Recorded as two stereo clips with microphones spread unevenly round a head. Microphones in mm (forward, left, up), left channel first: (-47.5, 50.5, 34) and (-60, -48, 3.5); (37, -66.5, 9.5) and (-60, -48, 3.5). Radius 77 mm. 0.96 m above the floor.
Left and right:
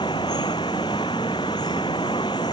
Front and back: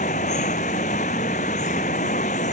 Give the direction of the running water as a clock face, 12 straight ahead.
11 o'clock.